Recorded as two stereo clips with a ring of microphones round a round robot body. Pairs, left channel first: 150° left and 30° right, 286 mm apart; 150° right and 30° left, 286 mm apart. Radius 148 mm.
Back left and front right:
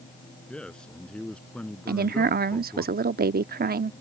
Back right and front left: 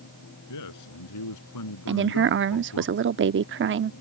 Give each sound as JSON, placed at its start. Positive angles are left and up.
{"t": 0.5, "sound": "a man speaking", "azimuth_deg": -125}
{"t": 1.9, "sound": "a woman speaking", "azimuth_deg": 10}